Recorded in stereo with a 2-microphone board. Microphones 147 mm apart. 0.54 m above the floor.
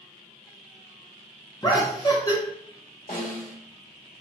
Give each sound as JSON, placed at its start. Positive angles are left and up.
{"t": 1.6, "sound": "laughter", "side_deg": 30, "distance_m": 0.8}
{"t": 3.1, "sound": "a snare drum", "side_deg": 70, "distance_m": 1.0}